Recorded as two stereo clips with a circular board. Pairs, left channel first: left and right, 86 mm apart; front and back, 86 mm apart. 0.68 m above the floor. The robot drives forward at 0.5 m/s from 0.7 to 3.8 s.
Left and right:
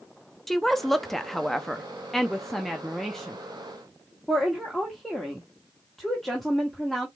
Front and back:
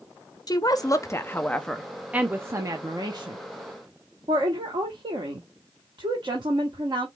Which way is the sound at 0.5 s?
5° left.